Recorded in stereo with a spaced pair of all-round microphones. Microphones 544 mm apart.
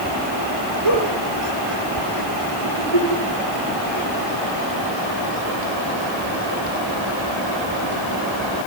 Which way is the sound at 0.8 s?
55° left (ahead or behind).